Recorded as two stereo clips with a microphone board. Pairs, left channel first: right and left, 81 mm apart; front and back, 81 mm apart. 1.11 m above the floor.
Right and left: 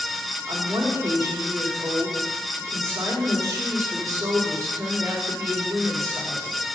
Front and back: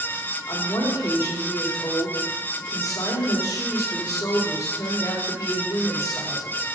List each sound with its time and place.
0.5 s a woman speaking: 40° left, 2.5 m